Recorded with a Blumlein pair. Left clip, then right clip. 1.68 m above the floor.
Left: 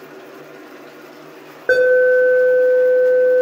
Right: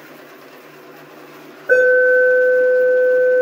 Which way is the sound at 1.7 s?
60° left.